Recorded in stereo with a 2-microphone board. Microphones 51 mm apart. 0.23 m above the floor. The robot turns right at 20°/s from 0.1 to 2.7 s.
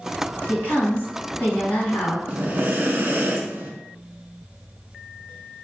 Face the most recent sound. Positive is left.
turn(degrees=-40)  # may be behind; listen again after turning